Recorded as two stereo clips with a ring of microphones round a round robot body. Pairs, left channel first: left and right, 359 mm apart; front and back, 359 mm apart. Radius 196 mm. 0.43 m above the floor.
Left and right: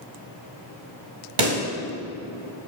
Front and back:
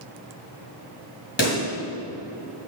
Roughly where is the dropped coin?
I don't hear a dropped coin.